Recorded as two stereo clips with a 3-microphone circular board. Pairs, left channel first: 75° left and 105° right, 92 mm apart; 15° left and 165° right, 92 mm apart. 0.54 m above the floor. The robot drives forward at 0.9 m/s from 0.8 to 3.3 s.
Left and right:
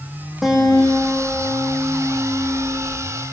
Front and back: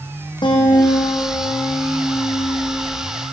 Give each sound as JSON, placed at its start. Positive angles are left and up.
{"t": 0.4, "sound": "a guitar", "azimuth_deg": -15, "distance_m": 6.5}